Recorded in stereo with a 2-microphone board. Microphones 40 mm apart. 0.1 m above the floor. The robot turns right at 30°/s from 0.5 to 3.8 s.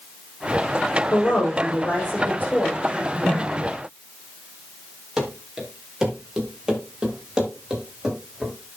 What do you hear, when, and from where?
1.1 s a woman speaking: 100° left, 6.5 m; by 2.7 s 145° left, 6.5 m
2.8 s a whoosh: centre (ahead or behind), 6 m; by 3.7 s 25° right (ahead or behind), 6 m
5.2 s running footsteps: 10° right (ahead or behind), 4.5 m; by 8.5 s 15° right (ahead or behind), 6.5 m